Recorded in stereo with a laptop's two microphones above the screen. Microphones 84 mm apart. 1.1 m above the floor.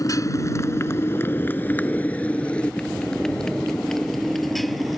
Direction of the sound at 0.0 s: 45° left (ahead or behind).